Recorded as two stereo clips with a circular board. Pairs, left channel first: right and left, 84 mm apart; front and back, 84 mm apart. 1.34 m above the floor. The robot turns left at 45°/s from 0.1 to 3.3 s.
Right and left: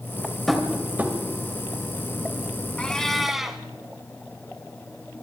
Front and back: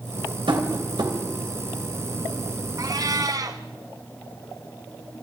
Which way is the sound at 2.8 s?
160° right.